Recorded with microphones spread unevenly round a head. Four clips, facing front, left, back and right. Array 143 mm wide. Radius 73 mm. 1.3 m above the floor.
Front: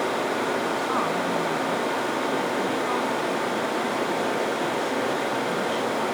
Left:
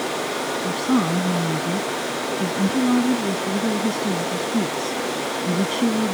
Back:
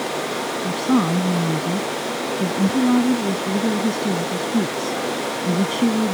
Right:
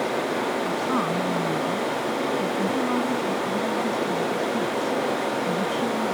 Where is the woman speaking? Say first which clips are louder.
Left 3 dB, back 5 dB; 140° left.